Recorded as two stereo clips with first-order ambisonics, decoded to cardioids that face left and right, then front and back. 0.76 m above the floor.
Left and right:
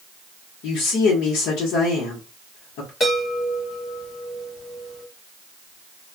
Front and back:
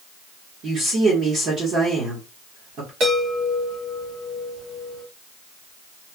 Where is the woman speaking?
125° left, 1.2 m.